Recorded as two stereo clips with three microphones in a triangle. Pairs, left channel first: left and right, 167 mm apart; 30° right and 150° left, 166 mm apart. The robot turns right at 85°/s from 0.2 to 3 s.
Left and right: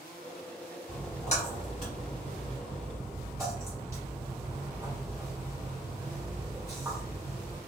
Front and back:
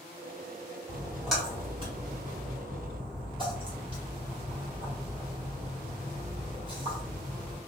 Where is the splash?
20° left, 1.3 m; by 7.6 s 160° right, 1.3 m.